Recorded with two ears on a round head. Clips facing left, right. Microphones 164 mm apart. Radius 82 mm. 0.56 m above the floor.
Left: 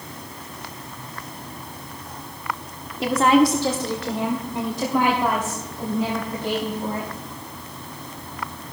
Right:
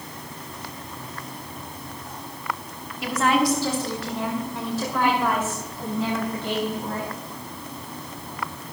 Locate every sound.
3.0 s a woman speaking: 25° left (ahead or behind), 1.0 m; by 7.1 s 10° left (ahead or behind), 4 m